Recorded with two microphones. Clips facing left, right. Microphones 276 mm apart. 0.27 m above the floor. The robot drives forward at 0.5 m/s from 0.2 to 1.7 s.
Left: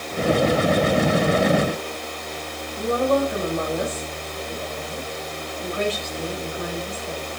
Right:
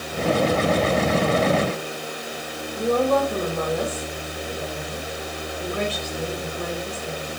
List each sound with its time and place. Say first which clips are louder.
2.8 s a woman speaking: even; 75° right (ahead or behind), 8.5 m